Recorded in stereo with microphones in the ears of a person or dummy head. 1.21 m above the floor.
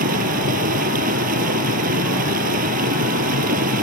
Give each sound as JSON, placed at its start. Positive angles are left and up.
{"t": 0.0, "sound": "running water", "side_deg": -45}